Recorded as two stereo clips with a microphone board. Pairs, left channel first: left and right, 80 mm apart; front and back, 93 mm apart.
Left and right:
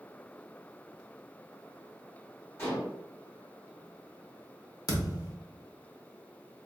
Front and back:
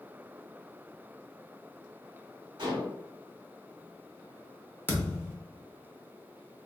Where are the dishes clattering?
145° left, 2.0 m.